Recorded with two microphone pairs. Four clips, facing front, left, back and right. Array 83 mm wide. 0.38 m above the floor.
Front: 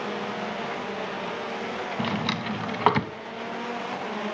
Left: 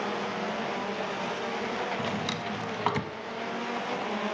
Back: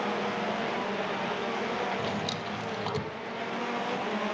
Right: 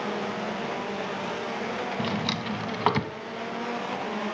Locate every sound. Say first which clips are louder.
2.0 s a drawer: right 2 dB, front 4 dB; 10° right, 0.7 m